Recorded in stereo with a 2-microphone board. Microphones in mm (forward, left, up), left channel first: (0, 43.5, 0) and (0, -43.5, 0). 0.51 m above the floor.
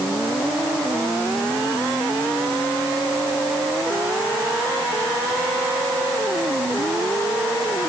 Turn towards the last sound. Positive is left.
No sound to turn to.